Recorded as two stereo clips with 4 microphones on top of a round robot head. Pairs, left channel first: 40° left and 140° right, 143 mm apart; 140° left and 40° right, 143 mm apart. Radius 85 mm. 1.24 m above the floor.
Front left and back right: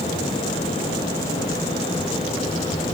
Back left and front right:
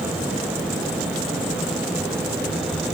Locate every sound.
Only background noise.